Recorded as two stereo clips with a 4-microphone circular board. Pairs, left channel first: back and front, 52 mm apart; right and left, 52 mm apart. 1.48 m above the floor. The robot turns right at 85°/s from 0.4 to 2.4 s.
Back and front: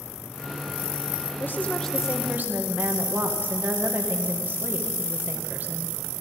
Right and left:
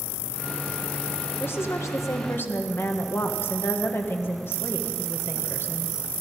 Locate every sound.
1.4 s a woman speaking: 135° right, 1.7 m; by 6.0 s 50° right, 1.7 m